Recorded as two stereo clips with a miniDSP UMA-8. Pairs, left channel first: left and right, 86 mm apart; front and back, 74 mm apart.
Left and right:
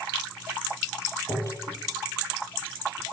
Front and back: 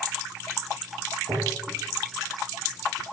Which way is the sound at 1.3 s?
140° left.